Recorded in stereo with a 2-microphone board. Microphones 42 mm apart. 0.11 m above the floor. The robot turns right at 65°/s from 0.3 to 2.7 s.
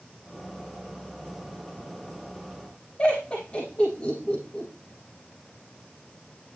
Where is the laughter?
25° left (ahead or behind), 5.5 m.